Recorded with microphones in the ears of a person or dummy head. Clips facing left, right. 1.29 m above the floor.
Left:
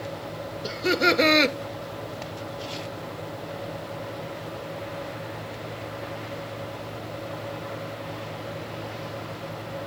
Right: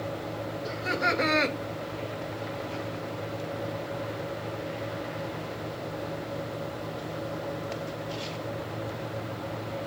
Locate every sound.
0.6 s laughter: 45° left (ahead or behind), 1.1 m